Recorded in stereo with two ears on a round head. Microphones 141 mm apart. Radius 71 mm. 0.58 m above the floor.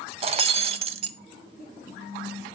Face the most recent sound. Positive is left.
turn(degrees=-40)  # may be behind; listen again after turning